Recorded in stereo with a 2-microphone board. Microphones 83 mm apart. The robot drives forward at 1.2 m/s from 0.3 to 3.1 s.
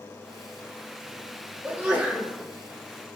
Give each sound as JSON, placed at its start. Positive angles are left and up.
{"t": 1.6, "sound": "a sneeze", "side_deg": -20, "distance_m": 1.5}